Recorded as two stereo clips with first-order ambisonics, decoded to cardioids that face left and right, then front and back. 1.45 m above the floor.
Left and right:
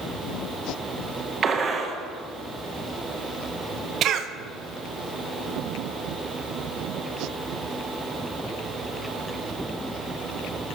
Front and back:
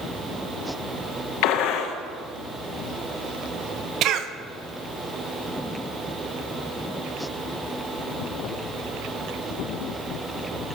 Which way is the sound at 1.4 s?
25° right.